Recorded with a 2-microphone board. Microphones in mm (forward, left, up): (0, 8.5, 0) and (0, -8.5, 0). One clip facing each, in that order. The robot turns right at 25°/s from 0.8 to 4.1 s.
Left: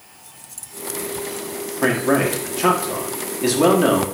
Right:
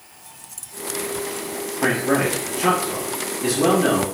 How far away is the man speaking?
About 1.6 m.